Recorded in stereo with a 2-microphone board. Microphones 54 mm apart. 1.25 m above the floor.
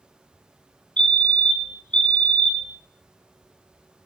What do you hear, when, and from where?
1.0 s a fire alarm: 15° left (ahead or behind), 0.9 m